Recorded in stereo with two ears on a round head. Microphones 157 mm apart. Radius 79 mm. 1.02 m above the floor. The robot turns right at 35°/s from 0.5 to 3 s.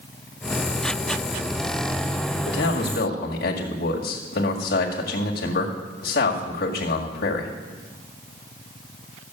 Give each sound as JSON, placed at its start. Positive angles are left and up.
{"t": 2.5, "sound": "a man speaking", "side_deg": 75, "distance_m": 2.0}